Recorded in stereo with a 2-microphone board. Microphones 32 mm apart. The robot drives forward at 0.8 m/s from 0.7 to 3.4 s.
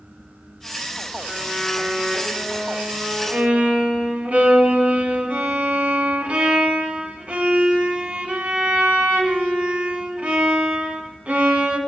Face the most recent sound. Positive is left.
turn(degrees=-50)  # may be behind; listen again after turning